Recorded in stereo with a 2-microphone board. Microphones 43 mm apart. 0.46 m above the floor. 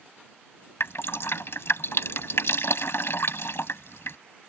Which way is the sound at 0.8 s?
70° left (ahead or behind).